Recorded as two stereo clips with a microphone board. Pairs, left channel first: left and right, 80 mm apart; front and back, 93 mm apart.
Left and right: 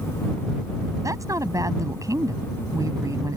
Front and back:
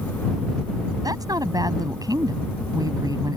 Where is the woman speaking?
135° right.